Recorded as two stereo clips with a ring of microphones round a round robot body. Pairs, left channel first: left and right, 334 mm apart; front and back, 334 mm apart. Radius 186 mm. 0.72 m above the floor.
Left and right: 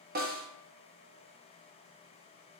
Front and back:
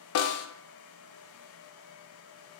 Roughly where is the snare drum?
Ahead right.